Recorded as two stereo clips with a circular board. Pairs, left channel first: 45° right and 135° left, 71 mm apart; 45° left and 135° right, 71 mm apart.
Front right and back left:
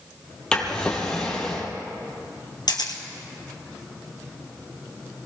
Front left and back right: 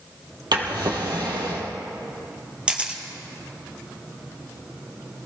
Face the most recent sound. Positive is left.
turn(degrees=-60)